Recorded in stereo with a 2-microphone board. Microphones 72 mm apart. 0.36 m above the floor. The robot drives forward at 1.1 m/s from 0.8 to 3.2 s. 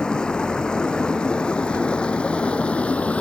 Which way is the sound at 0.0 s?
10° left (ahead or behind).